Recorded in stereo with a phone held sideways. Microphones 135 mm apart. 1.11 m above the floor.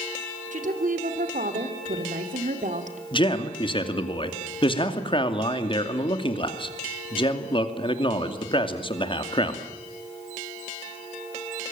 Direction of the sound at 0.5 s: 65° right (ahead or behind).